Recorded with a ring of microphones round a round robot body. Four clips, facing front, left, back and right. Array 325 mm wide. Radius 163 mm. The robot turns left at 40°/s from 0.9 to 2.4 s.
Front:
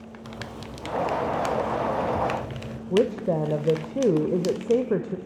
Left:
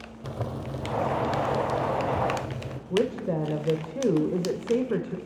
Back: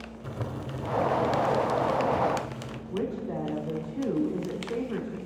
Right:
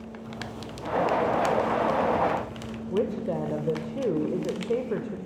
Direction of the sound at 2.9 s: 15° left.